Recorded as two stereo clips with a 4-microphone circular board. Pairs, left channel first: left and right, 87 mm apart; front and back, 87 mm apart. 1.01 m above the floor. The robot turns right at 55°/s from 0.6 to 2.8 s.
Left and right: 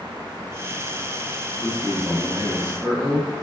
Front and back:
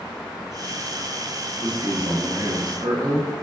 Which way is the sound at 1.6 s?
150° left.